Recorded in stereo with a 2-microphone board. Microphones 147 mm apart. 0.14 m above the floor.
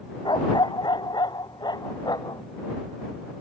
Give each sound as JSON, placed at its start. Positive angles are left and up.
{"t": 0.2, "sound": "a dog barking", "side_deg": 30}